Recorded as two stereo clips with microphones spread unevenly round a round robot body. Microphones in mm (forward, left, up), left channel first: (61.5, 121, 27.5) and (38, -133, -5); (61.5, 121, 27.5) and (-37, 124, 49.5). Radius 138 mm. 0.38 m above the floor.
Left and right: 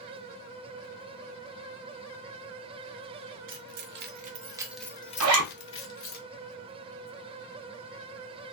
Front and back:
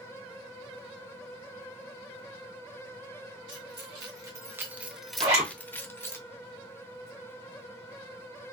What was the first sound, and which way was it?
Keys jangling, 125° right.